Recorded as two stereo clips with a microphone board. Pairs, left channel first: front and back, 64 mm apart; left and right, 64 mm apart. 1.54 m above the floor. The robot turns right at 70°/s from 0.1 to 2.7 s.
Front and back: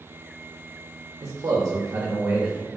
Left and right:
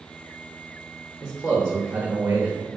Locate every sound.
1.2 s a man speaking: 160° left, 0.5 m; by 2.7 s 95° right, 0.5 m